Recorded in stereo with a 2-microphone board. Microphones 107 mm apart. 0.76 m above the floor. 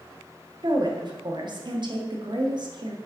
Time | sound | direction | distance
0.6 | a woman speaking | 50° right (ahead or behind) | 1.2 m